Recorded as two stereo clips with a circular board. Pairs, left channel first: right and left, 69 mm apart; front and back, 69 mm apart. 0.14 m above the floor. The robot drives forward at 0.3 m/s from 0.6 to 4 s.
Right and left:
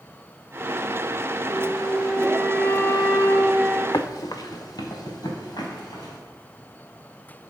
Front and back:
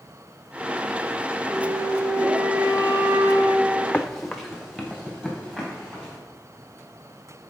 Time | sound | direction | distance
1.5 | a flute | 150° right | 1.0 m
3.9 | running footsteps | 70° right | 0.6 m